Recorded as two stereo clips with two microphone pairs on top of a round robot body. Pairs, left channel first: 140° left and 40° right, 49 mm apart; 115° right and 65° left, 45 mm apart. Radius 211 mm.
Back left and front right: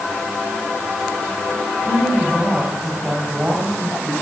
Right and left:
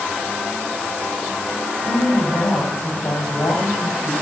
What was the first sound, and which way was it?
A woman speaking, 110° right.